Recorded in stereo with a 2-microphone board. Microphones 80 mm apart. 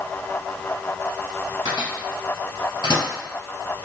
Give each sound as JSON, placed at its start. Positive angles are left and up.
{"t": 1.6, "sound": "a microwave", "side_deg": 55, "distance_m": 2.0}